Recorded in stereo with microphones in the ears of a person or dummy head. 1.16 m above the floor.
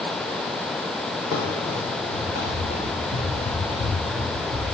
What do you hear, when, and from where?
1.3 s running footsteps: 60° left (ahead or behind), 2.5 m; by 4.6 s 45° left (ahead or behind), 2.5 m